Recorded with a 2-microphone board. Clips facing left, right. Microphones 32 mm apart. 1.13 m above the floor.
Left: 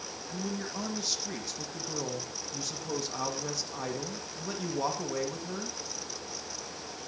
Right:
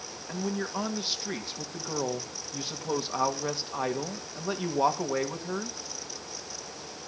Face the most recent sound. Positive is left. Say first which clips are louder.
# right 5 dB
turn(degrees=-35)  # may be behind; listen again after turning